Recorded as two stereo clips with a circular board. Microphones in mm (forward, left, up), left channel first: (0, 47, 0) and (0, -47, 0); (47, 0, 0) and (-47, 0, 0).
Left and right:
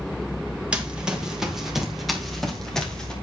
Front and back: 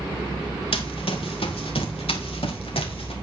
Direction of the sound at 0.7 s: 10° right.